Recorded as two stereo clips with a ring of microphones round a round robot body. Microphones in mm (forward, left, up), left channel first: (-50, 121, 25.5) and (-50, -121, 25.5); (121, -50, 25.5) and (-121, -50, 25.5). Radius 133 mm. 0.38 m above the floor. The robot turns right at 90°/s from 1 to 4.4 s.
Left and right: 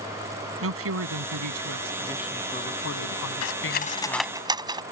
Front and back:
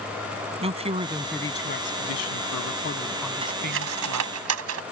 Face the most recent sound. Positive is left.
turn(degrees=-165)